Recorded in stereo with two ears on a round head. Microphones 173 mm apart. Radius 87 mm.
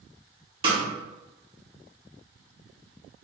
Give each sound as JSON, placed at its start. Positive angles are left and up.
{"t": 0.6, "sound": "a snare drum", "side_deg": -30, "distance_m": 1.1}